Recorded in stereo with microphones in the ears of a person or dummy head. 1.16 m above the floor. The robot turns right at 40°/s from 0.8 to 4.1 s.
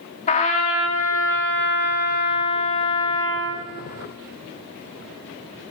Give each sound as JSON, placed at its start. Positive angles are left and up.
{"t": 0.3, "sound": "a trumpet", "azimuth_deg": 50, "distance_m": 1.3}